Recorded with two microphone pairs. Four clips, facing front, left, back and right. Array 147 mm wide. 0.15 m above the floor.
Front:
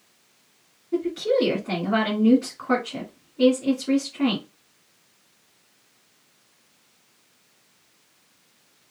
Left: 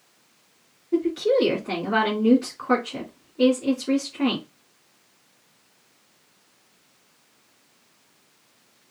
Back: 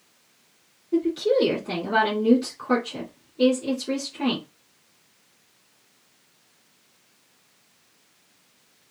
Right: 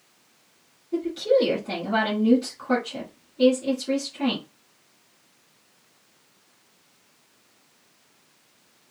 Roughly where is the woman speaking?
Ahead left.